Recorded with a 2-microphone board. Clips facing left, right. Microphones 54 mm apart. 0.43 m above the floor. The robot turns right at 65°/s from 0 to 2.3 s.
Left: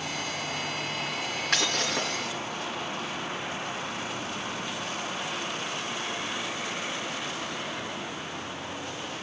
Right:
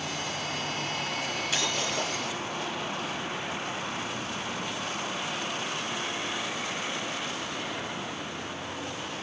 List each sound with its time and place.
1.5 s breaking glass: 65° left, 3.5 m; by 2.3 s 115° left, 3.5 m